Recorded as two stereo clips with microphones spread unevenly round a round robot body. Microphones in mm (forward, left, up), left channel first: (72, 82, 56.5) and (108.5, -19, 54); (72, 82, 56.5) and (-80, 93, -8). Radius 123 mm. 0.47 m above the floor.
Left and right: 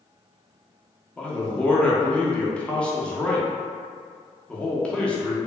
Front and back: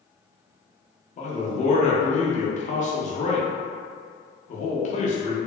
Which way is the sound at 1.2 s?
35° left.